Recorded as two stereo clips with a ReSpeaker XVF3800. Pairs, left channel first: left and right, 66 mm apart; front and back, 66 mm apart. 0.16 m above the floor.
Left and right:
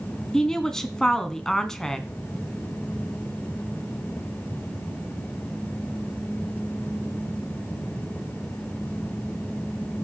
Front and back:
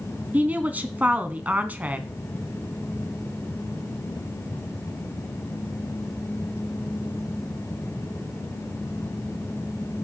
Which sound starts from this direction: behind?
A woman speaking, at 0.3 s.